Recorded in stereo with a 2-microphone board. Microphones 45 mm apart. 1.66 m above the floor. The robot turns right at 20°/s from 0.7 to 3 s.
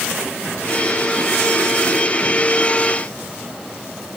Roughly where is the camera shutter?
No camera shutter in this recording.